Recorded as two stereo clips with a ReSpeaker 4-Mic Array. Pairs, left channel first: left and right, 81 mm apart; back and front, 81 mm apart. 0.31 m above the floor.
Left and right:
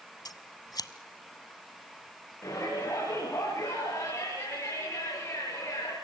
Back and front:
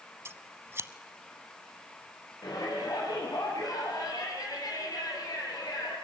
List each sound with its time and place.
0.2 s scissors: 55° left, 1.0 m
2.4 s a shout: 140° left, 8 m